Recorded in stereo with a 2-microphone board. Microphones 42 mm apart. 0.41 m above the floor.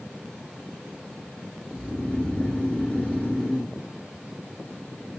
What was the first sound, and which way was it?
Snoring, 20° left (ahead or behind).